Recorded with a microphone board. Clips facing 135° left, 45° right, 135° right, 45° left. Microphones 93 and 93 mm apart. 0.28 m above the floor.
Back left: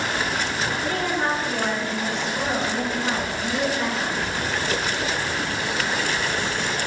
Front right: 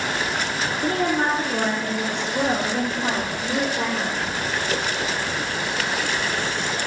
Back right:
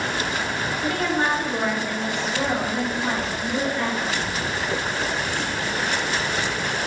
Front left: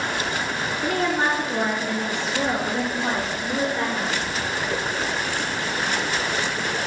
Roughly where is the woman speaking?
Ahead right.